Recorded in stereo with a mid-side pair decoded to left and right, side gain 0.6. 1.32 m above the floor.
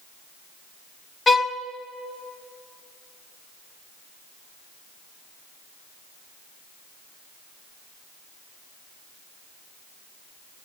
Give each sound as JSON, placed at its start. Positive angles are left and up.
{"t": 1.3, "sound": "a violin", "azimuth_deg": 20, "distance_m": 0.6}